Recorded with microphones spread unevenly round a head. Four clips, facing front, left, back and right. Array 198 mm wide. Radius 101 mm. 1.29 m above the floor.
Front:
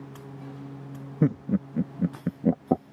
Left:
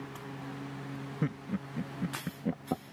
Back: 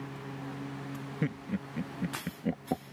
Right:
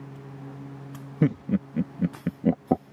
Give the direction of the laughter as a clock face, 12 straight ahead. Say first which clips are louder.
Right 12 dB, front 11 dB; 1 o'clock.